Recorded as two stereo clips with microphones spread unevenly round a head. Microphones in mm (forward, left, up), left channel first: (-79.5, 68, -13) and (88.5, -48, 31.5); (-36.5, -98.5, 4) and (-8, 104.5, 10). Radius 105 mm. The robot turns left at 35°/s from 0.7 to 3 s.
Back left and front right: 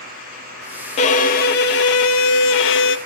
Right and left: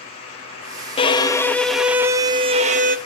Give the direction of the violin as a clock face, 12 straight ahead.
5 o'clock.